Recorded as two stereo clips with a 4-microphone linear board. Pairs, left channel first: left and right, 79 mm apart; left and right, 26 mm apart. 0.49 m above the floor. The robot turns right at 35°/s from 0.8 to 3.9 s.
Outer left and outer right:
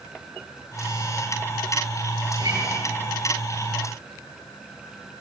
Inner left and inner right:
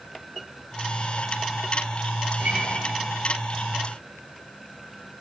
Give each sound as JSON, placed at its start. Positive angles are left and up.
{"t": 2.4, "sound": "a guitar", "side_deg": -80, "distance_m": 9.0}